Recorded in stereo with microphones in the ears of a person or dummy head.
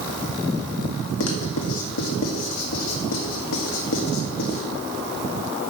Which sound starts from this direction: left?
Writing, at 1.2 s.